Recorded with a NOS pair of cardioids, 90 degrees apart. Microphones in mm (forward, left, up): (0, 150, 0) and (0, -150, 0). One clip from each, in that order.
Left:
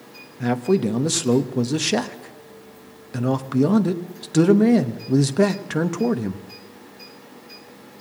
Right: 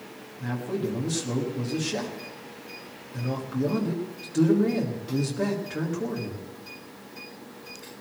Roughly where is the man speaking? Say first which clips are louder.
Left 10 dB; left.